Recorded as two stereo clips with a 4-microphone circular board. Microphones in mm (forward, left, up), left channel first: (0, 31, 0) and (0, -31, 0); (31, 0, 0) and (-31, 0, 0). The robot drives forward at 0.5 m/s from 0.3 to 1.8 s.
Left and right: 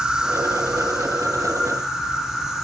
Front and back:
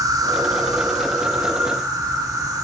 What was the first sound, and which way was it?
An insect, 170° right.